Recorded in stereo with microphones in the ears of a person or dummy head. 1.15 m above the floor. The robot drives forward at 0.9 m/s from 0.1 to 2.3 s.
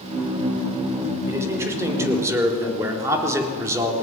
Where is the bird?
I don't hear a bird.